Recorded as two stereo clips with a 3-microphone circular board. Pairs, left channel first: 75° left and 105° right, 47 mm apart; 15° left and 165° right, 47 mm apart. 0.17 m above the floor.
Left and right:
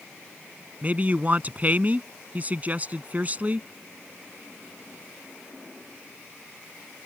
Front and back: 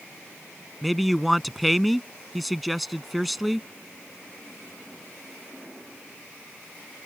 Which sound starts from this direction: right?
A man speaking, at 0.8 s.